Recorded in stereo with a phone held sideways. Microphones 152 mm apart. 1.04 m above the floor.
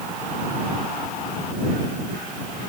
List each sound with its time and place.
Only background noise.